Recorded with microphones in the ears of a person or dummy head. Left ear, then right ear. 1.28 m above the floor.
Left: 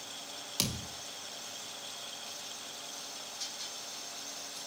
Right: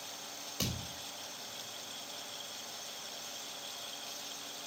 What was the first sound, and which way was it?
A thud, 65° left (ahead or behind).